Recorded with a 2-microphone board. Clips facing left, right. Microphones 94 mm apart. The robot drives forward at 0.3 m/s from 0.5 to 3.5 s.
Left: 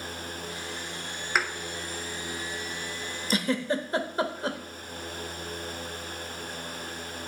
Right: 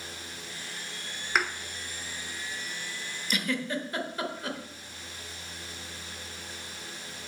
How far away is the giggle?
About 0.7 m.